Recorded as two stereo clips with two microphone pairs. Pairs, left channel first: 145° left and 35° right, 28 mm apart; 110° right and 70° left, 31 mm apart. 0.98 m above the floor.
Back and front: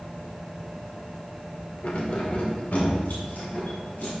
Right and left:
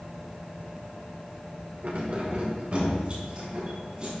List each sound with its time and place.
1.8 s keys jangling: 105° left, 1.6 m; by 4.1 s 120° left, 4 m